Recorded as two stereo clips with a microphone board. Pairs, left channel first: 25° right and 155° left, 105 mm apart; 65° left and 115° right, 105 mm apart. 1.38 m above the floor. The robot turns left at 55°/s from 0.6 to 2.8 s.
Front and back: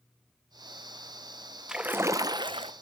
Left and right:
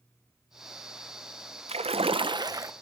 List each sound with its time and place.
1.7 s a splash: 120° right, 0.8 m; by 2.7 s 175° right, 0.8 m